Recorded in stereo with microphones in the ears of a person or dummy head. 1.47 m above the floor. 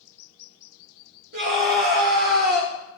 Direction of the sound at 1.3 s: 45° right (ahead or behind).